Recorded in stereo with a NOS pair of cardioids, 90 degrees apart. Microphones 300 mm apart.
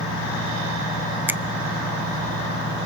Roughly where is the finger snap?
Ahead.